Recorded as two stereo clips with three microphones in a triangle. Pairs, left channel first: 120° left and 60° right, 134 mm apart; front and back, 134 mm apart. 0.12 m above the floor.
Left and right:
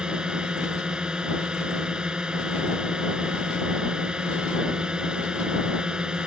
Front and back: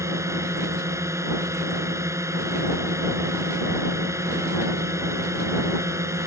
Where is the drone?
140° right.